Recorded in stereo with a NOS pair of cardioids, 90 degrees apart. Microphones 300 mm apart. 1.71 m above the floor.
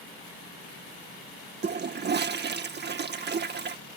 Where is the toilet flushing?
35° right.